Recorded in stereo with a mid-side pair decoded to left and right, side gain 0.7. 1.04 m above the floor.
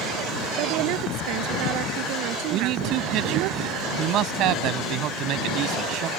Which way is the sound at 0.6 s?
65° right.